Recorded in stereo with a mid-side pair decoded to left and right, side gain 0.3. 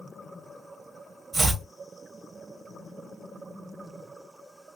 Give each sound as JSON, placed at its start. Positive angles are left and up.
{"t": 1.3, "sound": "chopping", "azimuth_deg": -45, "distance_m": 1.7}